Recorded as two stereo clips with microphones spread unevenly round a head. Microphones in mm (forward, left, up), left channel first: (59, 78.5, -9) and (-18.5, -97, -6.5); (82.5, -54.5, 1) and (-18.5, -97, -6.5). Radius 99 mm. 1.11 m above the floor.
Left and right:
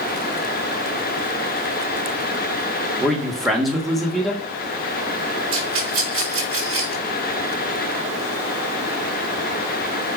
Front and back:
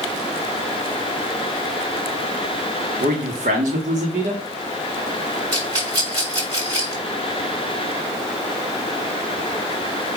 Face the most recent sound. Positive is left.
turn(degrees=-100)